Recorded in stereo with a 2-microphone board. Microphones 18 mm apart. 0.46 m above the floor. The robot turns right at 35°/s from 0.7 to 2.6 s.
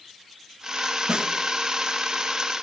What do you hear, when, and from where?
1.1 s a snare drum: 65° right (ahead or behind), 2 m